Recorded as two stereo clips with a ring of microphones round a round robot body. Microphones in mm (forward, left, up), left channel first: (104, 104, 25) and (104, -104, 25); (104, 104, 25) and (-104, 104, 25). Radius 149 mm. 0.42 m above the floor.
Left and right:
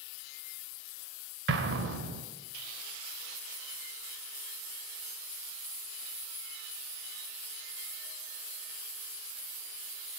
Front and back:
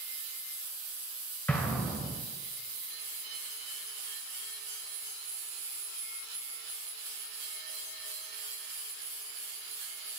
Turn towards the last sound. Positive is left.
turn(degrees=-85)